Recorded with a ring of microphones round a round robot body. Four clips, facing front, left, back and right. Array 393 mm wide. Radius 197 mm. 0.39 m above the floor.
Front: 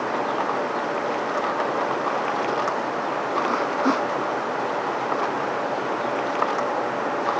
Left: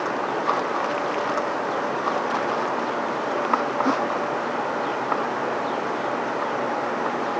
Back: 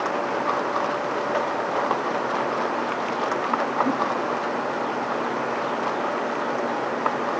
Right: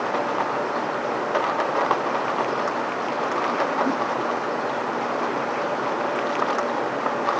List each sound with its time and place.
Only background noise.